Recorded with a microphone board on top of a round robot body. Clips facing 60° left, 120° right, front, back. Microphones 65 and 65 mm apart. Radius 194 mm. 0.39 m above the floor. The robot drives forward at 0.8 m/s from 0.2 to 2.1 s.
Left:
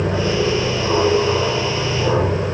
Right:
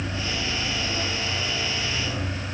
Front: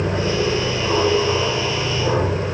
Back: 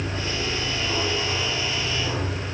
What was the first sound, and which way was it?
An aircraft, 50° left.